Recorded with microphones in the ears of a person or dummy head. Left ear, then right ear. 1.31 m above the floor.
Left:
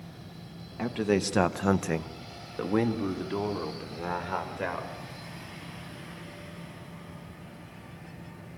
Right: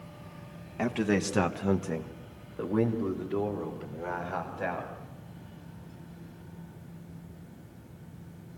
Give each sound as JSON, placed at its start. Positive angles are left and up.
{"t": 0.8, "sound": "a man speaking", "side_deg": -10, "distance_m": 1.4}